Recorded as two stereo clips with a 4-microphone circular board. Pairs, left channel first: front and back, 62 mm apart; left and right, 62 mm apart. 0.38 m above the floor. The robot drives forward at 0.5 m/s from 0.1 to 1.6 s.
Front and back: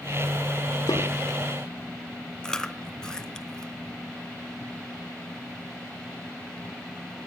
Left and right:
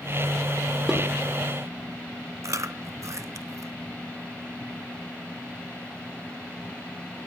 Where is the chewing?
75° right, 0.8 m.